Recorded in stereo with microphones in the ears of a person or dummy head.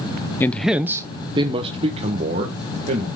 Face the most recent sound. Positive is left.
turn(degrees=-45)  # may be behind; listen again after turning